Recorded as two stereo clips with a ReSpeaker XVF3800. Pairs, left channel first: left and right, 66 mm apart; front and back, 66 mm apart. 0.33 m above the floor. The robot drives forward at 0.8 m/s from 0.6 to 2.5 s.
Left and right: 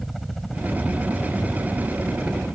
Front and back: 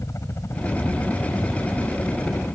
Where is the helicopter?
Straight ahead; by 2.6 s 15° left.